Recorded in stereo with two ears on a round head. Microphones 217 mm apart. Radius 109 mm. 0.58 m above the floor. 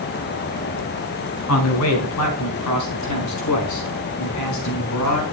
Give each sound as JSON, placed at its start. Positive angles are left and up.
{"t": 1.5, "sound": "a man speaking", "side_deg": 70, "distance_m": 4.5}